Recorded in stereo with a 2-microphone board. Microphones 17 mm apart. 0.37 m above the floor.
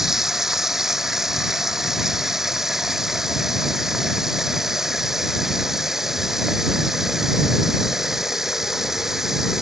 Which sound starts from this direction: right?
Running water, at 0.0 s.